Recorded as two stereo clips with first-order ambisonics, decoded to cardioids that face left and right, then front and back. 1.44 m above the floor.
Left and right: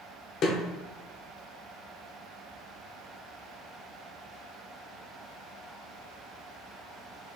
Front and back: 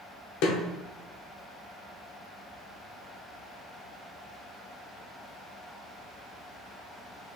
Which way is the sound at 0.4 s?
35° left.